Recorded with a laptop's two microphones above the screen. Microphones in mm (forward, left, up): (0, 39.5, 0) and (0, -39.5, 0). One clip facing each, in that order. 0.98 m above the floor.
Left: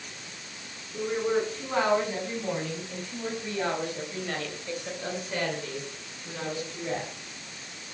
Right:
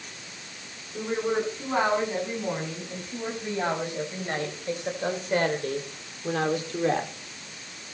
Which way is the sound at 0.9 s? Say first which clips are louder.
Even; 10° right (ahead or behind).